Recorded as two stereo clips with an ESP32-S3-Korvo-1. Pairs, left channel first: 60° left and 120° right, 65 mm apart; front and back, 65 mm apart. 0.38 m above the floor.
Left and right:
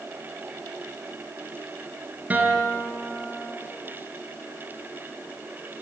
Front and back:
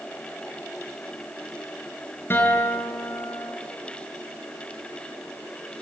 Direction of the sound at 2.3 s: 55° right.